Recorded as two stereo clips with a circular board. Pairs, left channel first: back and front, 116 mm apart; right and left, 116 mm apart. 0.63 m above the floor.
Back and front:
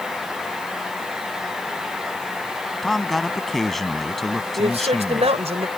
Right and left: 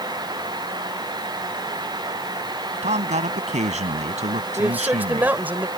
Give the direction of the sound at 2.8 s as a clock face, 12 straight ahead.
9 o'clock.